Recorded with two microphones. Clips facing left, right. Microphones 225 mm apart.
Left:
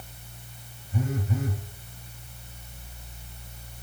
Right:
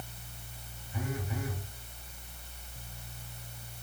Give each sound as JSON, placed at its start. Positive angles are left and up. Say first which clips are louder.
{"t": 0.9, "sound": "a phone buzzing", "louder": "left 7 dB", "side_deg": 35, "distance_m": 2.5}